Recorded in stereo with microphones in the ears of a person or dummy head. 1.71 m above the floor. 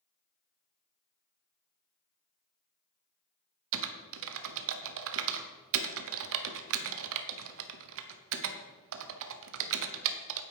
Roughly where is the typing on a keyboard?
Right.